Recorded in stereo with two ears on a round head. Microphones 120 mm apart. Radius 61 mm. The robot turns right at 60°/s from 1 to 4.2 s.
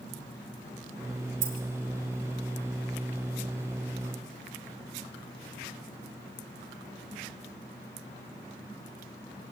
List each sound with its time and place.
1.4 s keys jangling: 65° right (ahead or behind), 3 m; by 1.6 s 75° right (ahead or behind), 3 m